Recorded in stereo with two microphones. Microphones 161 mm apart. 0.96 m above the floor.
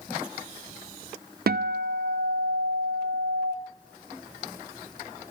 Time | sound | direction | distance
1.5 | a guitar | 70° right (ahead or behind) | 0.5 m